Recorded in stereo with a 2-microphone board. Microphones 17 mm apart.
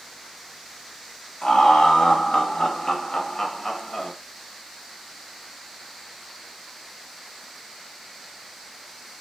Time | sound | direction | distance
1.4 | laughter | 75° left (ahead or behind) | 1.5 m